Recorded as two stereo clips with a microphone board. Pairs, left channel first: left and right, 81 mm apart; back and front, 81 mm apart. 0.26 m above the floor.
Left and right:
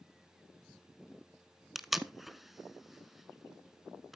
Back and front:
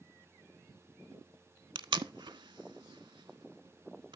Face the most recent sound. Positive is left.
turn(degrees=0)